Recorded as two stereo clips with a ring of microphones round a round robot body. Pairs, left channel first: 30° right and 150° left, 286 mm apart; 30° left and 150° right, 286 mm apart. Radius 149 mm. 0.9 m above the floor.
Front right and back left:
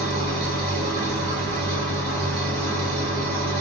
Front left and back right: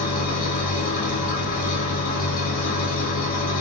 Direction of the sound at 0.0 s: 90° left.